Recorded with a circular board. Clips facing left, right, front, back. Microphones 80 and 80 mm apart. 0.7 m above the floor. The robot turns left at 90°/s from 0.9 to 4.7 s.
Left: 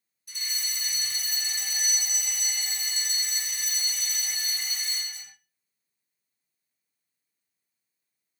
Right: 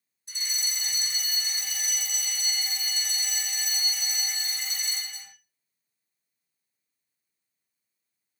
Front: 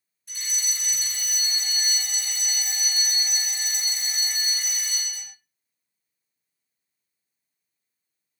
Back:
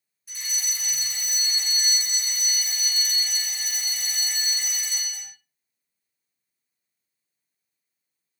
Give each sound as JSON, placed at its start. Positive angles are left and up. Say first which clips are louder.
{"t": 0.3, "sound": "a fire alarm", "louder": "right 1 dB, even", "azimuth_deg": -100, "distance_m": 1.9}